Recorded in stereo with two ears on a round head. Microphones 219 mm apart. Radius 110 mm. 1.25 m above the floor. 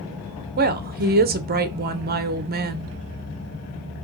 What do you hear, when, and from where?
0.6 s a woman speaking: 40° right (ahead or behind), 0.6 m